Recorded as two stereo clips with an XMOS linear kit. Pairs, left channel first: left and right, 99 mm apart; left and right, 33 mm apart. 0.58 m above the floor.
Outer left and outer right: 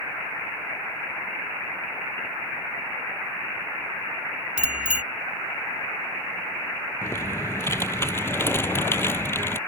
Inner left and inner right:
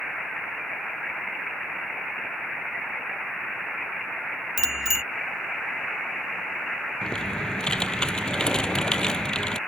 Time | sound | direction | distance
4.6 | a bicycle bell | 10° right (ahead or behind) | ?
7.0 | typing on a keyboard | 25° left (ahead or behind) | ?